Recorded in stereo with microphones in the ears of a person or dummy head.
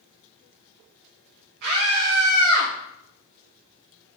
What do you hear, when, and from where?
1.6 s a scream: 60° right (ahead or behind), 2 m; by 2.7 s 75° right (ahead or behind), 2.5 m